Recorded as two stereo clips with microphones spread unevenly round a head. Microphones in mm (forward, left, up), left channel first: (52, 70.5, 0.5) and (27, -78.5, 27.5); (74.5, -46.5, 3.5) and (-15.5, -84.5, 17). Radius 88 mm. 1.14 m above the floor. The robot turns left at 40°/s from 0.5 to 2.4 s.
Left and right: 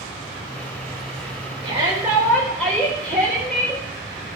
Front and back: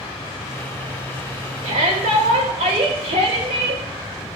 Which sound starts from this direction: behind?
A shout, at 1.6 s.